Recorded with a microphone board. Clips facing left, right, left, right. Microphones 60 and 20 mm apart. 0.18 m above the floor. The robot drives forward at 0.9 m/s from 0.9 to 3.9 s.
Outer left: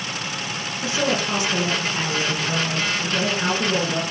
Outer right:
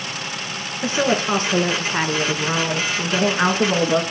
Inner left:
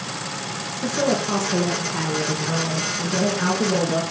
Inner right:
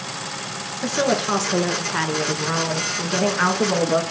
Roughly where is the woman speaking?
Right.